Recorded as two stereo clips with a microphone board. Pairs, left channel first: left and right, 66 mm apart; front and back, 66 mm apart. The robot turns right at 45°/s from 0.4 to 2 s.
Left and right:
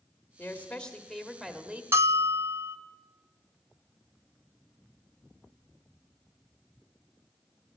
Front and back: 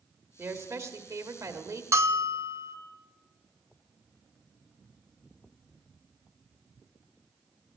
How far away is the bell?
About 0.7 m.